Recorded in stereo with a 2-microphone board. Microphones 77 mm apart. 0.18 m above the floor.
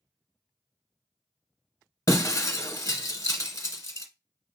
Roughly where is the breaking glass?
Left.